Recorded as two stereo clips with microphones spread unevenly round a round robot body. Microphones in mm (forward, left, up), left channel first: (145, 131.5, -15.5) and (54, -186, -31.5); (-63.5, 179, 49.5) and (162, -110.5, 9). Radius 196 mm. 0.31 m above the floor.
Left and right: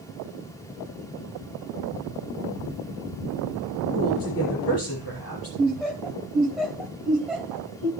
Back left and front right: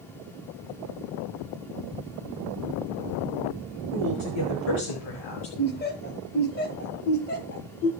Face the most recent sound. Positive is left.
turn(degrees=170)